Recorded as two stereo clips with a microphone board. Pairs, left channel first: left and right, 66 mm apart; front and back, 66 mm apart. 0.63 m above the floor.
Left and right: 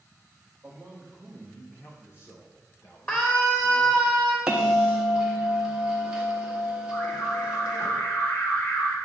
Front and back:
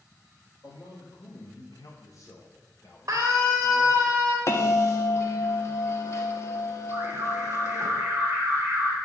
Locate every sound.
0.6 s a man speaking: 15° right, 2 m; by 4.1 s 80° left, 3.5 m
3.1 s a scream: 150° left, 1.0 m
4.5 s a bell: 20° right, 1.2 m
6.9 s an alarm: 130° left, 3.5 m